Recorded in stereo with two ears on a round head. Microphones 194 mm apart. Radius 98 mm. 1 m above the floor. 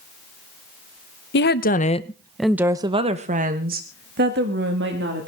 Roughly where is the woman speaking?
Left.